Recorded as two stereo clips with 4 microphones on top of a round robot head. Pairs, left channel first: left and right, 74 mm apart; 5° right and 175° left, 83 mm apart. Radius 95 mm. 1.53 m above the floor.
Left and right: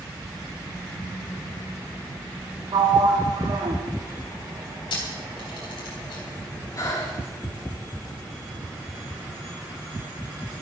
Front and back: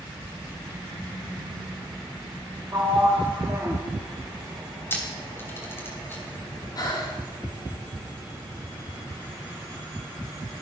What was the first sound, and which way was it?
A sliding door, 115° right.